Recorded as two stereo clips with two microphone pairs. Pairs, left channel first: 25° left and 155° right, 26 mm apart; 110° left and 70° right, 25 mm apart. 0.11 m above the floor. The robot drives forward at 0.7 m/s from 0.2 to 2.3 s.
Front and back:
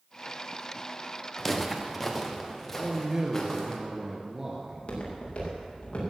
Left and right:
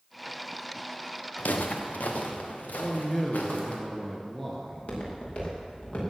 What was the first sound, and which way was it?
Footsteps, 110° left.